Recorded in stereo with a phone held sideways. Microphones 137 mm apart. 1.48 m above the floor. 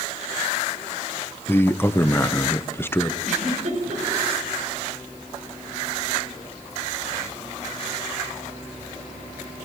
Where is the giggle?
60° right (ahead or behind), 6 m.